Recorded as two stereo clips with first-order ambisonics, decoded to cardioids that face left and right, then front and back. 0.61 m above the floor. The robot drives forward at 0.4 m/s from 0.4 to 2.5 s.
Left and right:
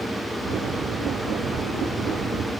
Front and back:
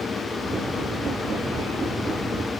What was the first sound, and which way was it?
Only background noise.